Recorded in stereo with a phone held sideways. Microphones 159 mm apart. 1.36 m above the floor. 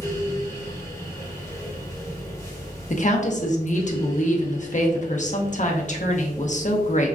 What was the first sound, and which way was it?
A fan, 20° left (ahead or behind).